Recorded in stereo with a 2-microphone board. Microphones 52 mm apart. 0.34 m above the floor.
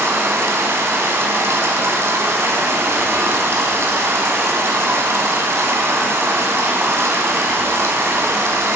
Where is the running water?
60° right (ahead or behind), 1.5 m.